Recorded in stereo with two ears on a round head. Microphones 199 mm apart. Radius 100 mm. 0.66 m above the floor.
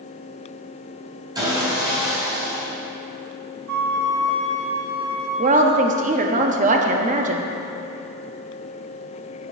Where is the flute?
85° right, 1.0 m.